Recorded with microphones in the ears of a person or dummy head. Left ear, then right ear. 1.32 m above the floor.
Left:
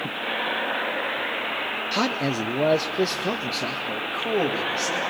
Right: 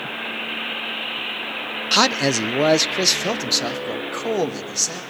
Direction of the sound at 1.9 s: 30° right (ahead or behind).